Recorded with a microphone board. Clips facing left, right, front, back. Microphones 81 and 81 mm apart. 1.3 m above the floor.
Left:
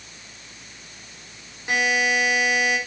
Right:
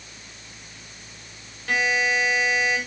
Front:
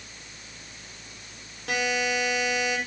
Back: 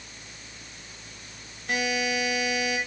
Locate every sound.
1.7 s a buzzer: 15° left, 5 m